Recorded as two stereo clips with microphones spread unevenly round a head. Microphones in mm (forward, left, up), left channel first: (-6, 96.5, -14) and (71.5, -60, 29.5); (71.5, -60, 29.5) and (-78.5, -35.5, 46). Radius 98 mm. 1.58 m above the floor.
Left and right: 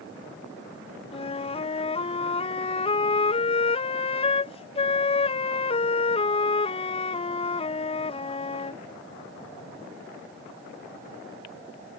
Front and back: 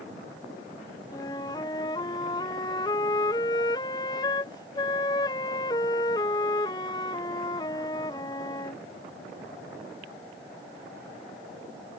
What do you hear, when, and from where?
1.1 s a flute: 60° left